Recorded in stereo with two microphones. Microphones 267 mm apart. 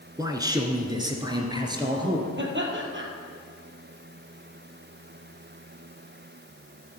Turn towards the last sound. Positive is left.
turn(degrees=-45)  # may be behind; listen again after turning